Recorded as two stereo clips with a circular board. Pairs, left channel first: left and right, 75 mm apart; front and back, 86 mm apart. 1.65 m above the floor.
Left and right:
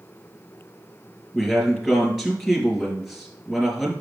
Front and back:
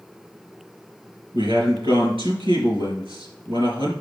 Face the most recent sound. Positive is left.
turn(degrees=-175)